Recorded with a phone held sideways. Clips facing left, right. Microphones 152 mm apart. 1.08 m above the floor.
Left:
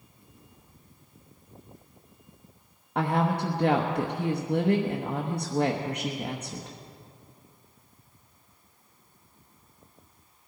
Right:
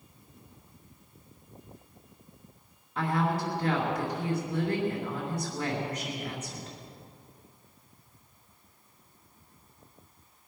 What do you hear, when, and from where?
3.0 s a woman speaking: 60° left (ahead or behind), 1.1 m